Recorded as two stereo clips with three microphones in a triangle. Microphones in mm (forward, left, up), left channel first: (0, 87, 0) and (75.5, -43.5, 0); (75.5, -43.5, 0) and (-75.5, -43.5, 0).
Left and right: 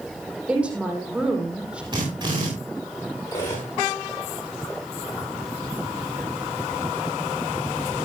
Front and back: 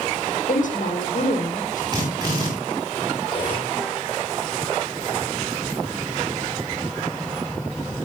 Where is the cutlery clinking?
55° left, 7 m.